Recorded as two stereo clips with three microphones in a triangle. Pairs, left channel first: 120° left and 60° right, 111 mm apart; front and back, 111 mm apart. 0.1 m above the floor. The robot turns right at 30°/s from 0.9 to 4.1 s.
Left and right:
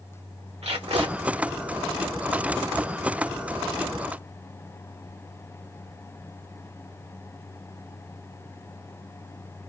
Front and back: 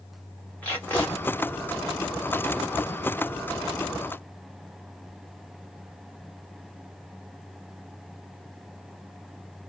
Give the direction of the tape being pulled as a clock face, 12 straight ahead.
3 o'clock.